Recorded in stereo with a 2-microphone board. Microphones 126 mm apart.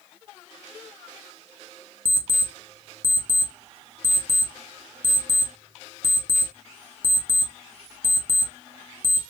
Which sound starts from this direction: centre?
An alarm clock, at 2.0 s.